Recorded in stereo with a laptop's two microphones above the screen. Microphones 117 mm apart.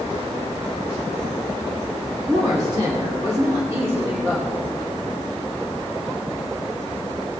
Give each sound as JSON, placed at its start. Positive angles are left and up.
{"t": 2.3, "sound": "a woman speaking", "side_deg": -45, "distance_m": 3.0}